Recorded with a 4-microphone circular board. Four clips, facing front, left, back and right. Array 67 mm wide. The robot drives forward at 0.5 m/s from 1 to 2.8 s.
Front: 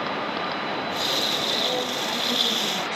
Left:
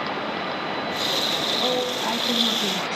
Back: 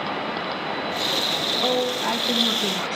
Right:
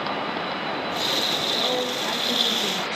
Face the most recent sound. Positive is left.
turn(degrees=140)